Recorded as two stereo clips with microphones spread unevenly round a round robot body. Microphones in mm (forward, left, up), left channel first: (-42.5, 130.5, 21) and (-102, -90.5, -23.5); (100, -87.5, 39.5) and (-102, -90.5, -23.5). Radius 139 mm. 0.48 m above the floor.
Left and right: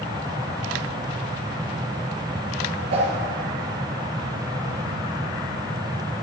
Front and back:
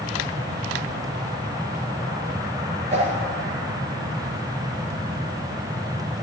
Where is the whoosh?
120° right, 3 m.